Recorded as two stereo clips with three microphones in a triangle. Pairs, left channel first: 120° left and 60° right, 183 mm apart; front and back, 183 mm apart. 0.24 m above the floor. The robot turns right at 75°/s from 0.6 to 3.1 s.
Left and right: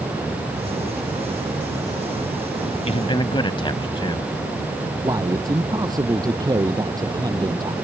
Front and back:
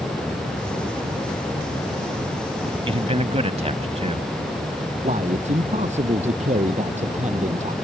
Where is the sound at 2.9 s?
145° left; by 4.3 s 165° left.